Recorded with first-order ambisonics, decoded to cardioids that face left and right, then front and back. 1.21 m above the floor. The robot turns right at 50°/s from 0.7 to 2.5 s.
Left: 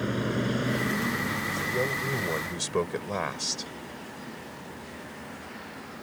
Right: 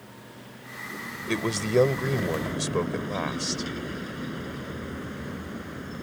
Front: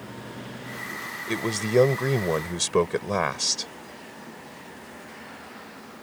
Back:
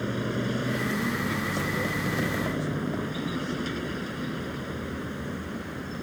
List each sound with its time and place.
0.0 s a vehicle: 125° left; by 6.0 s 145° right
1.3 s a man speaking: 60° right; by 3.7 s straight ahead